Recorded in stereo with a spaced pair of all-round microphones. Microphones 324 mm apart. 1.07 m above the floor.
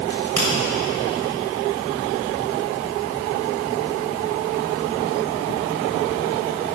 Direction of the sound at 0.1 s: 70° right (ahead or behind).